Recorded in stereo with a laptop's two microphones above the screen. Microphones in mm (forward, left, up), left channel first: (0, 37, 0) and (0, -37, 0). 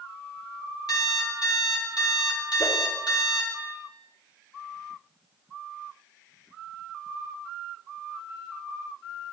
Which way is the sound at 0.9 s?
65° left (ahead or behind).